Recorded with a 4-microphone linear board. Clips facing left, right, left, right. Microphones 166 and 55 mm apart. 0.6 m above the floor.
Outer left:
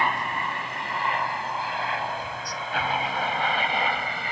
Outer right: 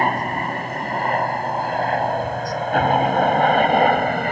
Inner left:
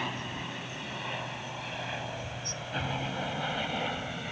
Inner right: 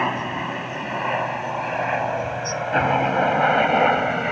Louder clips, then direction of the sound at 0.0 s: Outer right 6 dB, inner right 12 dB; 45° right (ahead or behind).